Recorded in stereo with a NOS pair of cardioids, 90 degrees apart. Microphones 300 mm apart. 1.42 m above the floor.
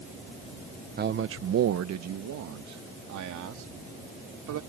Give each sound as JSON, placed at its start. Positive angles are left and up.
{"t": 1.0, "sound": "a man speaking", "azimuth_deg": -30}